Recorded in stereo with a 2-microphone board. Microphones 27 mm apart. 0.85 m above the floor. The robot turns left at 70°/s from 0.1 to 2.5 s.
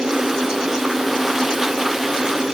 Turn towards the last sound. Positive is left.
No sound to turn to.